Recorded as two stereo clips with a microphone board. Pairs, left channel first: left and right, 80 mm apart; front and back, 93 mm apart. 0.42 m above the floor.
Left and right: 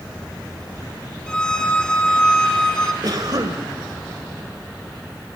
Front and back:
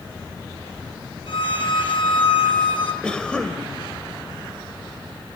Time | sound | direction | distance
1.3 | a violin | 10° left | 3 m
3.0 | a cough | 75° right | 1.9 m